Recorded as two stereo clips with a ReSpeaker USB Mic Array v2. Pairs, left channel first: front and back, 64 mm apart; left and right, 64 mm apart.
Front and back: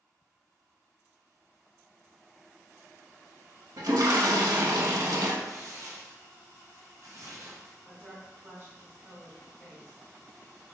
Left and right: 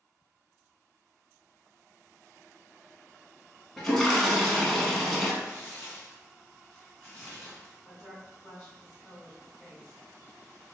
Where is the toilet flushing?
175° left, 0.7 m.